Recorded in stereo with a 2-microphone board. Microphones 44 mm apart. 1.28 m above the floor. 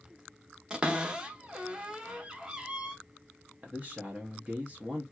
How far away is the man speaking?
About 0.9 m.